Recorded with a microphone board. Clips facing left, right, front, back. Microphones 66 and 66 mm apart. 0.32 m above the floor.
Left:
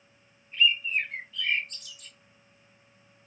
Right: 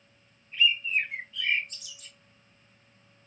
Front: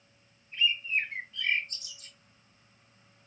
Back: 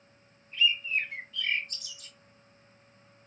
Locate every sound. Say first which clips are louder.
0.5 s a bird: even, back 1 dB; 10° right, 1.4 m